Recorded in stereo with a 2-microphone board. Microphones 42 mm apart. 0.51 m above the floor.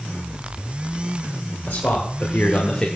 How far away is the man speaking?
About 2.5 m.